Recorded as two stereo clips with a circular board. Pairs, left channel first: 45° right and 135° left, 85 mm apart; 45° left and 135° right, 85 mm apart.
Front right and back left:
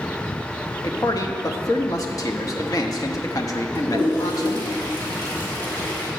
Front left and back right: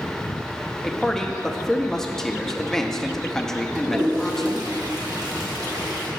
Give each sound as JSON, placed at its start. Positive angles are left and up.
{"t": 0.8, "sound": "a man speaking", "azimuth_deg": -35, "distance_m": 0.9}
{"t": 3.8, "sound": "a toilet flushing", "azimuth_deg": -105, "distance_m": 3.0}